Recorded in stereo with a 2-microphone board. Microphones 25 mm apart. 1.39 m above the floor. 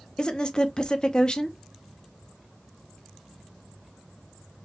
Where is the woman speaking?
35° left (ahead or behind), 0.6 m.